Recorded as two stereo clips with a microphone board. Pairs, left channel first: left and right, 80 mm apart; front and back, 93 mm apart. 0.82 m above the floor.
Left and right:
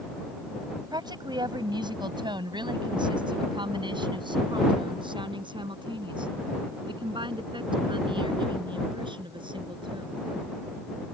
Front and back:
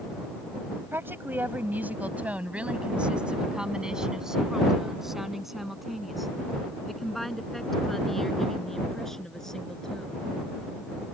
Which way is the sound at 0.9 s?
115° right.